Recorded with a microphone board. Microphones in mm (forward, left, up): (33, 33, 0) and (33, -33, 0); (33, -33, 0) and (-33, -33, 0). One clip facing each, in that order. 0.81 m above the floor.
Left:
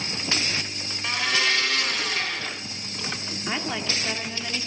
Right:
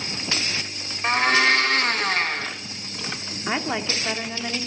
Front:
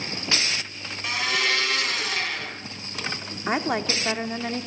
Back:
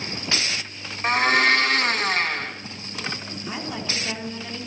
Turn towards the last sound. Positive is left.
turn(degrees=-25)